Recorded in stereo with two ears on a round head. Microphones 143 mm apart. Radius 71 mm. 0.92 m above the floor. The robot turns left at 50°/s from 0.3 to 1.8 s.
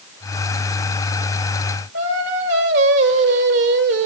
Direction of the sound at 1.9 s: 80° right.